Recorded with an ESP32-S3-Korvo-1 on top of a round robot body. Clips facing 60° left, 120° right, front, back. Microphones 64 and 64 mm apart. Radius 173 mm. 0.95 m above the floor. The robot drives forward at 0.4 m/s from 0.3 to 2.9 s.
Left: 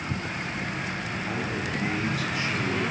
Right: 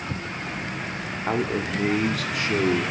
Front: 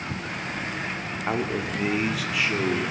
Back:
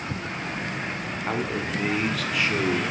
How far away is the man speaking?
About 2.5 m.